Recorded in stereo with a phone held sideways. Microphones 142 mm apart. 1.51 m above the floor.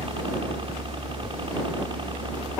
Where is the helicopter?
40° right (ahead or behind); by 2.6 s 35° right (ahead or behind).